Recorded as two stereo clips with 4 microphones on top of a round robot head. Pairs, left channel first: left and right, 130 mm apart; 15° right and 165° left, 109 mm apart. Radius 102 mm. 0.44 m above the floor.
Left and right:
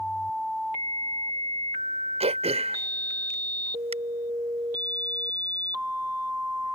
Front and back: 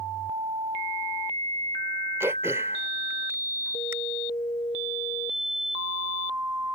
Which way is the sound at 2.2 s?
125° right.